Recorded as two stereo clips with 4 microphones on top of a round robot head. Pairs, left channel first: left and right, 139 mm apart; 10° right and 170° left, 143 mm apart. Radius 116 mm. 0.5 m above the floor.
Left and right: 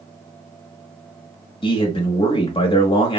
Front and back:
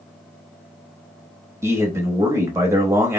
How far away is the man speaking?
About 0.9 m.